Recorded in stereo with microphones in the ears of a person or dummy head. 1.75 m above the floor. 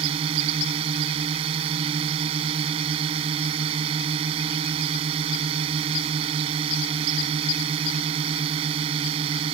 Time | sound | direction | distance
0.0 | a drone | 30° right (ahead or behind) | ?